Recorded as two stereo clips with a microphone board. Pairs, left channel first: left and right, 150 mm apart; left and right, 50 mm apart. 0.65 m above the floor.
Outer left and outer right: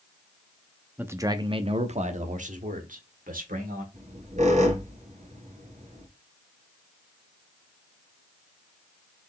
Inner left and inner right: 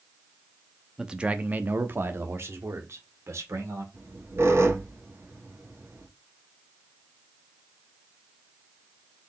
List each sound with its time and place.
1.0 s a man speaking: 10° right (ahead or behind), 0.6 m; by 3.8 s 70° right (ahead or behind), 1.7 m
3.9 s a squeak: 55° right (ahead or behind), 1.5 m